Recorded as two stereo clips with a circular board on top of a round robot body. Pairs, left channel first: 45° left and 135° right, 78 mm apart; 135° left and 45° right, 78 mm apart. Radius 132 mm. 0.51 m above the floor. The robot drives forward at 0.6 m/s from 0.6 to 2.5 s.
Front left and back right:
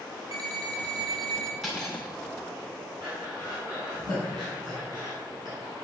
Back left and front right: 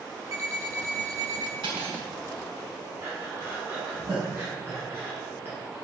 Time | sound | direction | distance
0.3 | an alarm clock | 100° right | 3 m
1.6 | cutlery clinking | 45° right | 4 m
3.0 | breathing | 110° right | 7 m